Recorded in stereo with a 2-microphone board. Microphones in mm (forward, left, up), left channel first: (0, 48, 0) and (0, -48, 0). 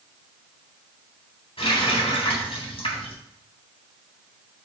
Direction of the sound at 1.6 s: 80° left.